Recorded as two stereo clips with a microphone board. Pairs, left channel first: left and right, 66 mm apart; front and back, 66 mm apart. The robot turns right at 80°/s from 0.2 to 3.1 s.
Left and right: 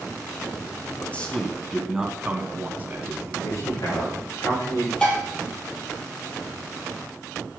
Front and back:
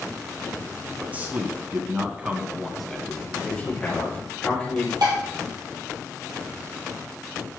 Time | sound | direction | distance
1.0 | a man speaking | 125° left | 1.6 m
3.4 | a man speaking | 75° left | 5 m
5.0 | dishes clattering | 165° left | 3 m